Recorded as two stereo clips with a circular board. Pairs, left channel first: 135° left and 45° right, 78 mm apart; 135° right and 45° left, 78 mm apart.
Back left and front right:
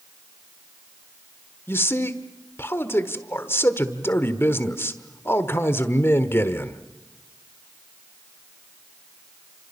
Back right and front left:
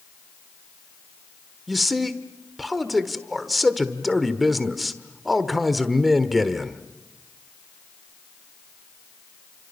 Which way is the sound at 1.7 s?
135° left.